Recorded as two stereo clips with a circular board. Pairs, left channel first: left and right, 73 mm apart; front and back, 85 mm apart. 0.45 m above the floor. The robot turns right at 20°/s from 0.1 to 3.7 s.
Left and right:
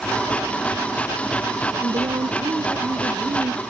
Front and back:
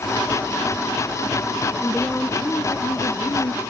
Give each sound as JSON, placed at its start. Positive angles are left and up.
{"t": 1.8, "sound": "a woman speaking", "azimuth_deg": -80}